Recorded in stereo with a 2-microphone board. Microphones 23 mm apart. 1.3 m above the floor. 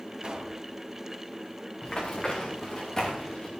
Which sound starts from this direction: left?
Running footsteps, at 1.8 s.